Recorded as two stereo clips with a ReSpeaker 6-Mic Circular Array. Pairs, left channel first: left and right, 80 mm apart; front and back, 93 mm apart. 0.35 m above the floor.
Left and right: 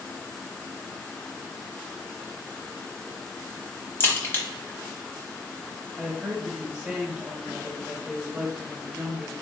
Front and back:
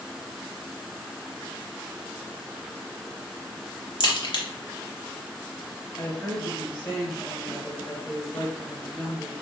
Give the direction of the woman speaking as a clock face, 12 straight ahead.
1 o'clock.